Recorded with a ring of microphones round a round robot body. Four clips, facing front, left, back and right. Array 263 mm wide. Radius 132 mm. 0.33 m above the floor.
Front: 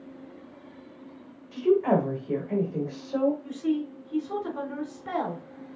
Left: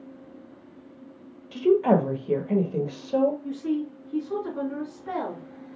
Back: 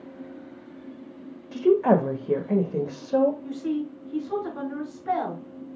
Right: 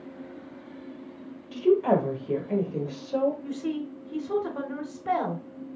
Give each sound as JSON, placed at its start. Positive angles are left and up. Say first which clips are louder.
{"t": 1.5, "sound": "a woman speaking", "louder": "left 2 dB, back 3 dB", "azimuth_deg": 155, "distance_m": 1.2}
{"t": 3.4, "sound": "a woman speaking", "louder": "left 3 dB, even", "azimuth_deg": -85, "distance_m": 3.0}